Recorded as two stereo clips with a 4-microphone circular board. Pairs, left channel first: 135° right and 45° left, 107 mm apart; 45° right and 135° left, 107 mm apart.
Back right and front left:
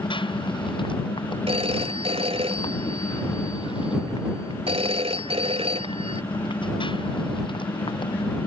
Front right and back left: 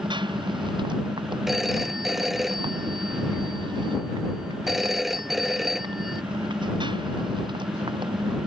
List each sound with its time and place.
0.0 s a motorcycle: straight behind
1.5 s a phone ringing: 50° left